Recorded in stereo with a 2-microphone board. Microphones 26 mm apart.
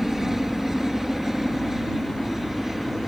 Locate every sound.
0.0 s a helicopter: 15° right (ahead or behind)